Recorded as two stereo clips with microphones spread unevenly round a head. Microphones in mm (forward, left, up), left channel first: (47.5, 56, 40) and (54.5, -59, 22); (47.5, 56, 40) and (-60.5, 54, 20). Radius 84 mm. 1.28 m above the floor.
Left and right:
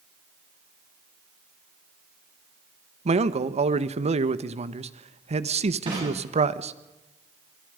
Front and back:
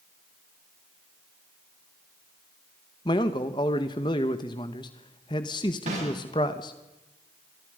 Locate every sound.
3.0 s a man speaking: 60° right, 1.5 m
5.9 s a snare drum: 145° right, 9.5 m